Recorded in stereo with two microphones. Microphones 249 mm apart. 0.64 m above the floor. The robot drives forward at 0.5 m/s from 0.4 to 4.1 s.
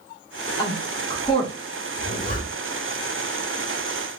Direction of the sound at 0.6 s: 20° left (ahead or behind).